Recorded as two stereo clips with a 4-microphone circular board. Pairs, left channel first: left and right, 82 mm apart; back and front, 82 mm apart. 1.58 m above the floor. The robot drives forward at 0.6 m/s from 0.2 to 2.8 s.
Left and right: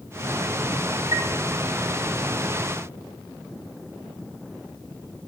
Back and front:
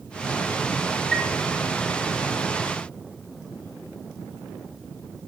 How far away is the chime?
About 1.5 m.